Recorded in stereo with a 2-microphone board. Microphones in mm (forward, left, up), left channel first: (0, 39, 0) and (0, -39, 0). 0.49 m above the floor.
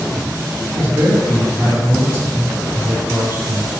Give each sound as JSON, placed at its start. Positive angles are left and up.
{"t": 0.8, "sound": "a man speaking", "side_deg": -30, "distance_m": 1.1}